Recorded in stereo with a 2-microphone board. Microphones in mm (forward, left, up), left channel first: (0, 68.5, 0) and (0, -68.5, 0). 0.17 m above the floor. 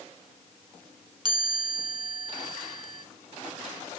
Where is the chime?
30° right (ahead or behind), 0.7 m.